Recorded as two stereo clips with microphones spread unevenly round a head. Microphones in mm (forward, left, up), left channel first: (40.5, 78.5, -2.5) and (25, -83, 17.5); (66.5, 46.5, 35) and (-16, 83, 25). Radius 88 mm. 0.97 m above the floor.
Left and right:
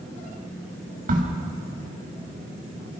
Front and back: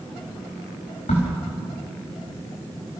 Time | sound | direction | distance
1.1 | a crack | 55° right | 4 m